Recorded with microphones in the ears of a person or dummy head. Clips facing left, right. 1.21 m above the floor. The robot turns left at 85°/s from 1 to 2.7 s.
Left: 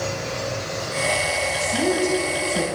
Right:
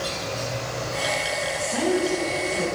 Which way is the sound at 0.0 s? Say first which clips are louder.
Left 3 dB; 80° left.